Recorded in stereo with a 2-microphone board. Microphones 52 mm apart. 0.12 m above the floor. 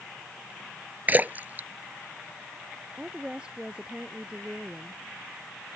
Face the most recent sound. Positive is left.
turn(degrees=-20)  # may be behind; listen again after turning